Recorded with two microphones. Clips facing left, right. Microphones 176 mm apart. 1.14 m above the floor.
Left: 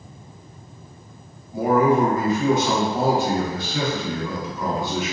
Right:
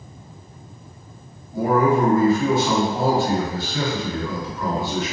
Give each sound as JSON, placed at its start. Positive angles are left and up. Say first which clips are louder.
{"t": 1.5, "sound": "a man speaking", "louder": "even", "side_deg": 20, "distance_m": 1.1}